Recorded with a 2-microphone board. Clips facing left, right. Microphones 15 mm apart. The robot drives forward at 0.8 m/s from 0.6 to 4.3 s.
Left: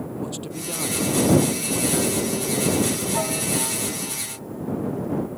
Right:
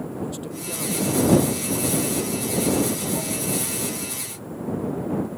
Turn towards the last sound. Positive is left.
turn(degrees=70)  # may be behind; listen again after turning